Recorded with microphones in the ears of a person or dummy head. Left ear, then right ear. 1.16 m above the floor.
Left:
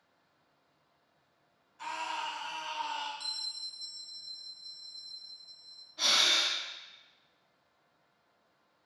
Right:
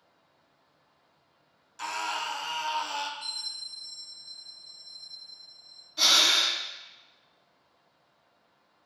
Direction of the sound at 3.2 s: 45° left (ahead or behind).